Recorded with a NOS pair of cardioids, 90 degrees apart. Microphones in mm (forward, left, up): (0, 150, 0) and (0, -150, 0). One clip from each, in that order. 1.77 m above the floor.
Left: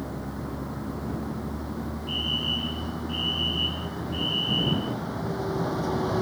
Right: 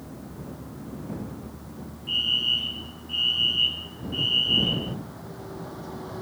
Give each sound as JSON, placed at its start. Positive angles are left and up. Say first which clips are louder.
{"t": 0.0, "sound": "a vehicle", "louder": "left 6 dB", "azimuth_deg": 65}
{"t": 2.1, "sound": "a fire alarm", "louder": "right 5 dB", "azimuth_deg": -35}